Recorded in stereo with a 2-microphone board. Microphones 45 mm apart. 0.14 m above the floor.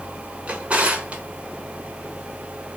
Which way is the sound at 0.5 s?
30° right (ahead or behind).